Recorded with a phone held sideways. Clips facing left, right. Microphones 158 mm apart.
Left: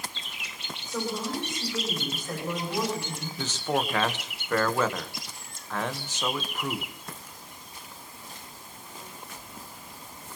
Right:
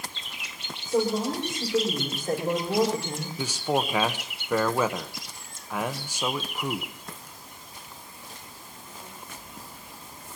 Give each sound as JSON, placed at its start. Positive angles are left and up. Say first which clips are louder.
{"t": 0.9, "sound": "a woman speaking", "louder": "right 7 dB", "side_deg": -50, "distance_m": 6.5}
{"t": 3.4, "sound": "a man speaking", "louder": "right 2 dB", "side_deg": -10, "distance_m": 1.3}